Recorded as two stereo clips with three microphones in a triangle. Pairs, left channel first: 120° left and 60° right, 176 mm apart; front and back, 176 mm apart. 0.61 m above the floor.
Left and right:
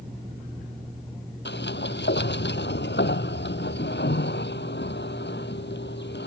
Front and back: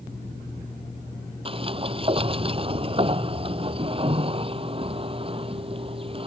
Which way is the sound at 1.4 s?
120° left.